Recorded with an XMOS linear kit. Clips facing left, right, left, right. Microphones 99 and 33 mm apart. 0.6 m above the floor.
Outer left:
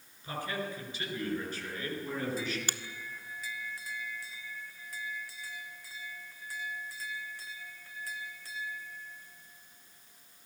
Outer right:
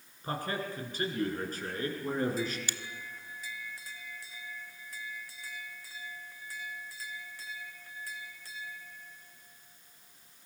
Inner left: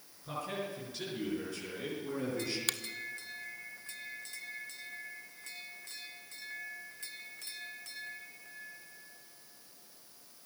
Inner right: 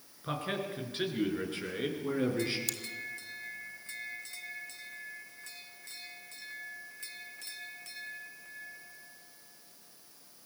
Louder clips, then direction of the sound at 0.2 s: Outer right 1 dB, inner right 3 dB; 45° right (ahead or behind).